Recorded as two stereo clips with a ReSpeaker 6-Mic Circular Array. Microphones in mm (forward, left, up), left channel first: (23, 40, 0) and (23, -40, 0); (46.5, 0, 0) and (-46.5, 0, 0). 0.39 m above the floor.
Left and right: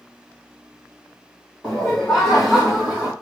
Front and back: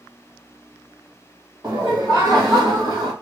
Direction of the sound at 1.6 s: 175° right.